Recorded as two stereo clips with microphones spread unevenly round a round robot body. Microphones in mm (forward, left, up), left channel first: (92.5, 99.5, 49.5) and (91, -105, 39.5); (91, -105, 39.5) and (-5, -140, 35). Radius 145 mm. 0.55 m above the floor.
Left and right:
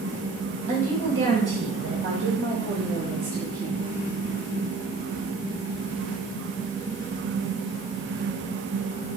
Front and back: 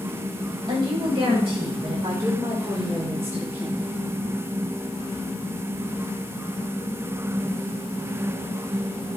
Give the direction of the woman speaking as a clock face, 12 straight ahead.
4 o'clock.